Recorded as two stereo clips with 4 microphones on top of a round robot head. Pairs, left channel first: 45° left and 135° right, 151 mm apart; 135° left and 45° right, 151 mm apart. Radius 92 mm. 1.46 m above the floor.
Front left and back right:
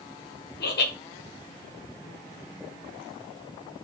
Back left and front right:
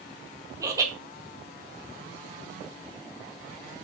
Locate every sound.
0.6 s laughter: 25° left, 2.5 m